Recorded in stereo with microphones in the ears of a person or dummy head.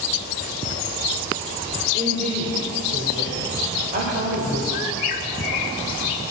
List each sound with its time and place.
1.9 s a woman speaking: 40° right (ahead or behind), 4 m
4.7 s a bird: 35° left (ahead or behind), 1.4 m